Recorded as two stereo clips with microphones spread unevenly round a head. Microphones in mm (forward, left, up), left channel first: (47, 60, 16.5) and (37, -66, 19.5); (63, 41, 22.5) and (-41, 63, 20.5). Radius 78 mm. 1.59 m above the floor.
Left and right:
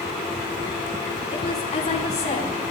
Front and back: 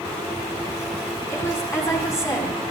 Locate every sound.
1.3 s a woman speaking: 50° left, 4.5 m